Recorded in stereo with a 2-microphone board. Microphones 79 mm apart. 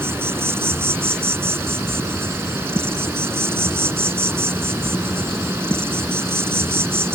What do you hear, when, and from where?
0.0 s an insect: 30° right (ahead or behind)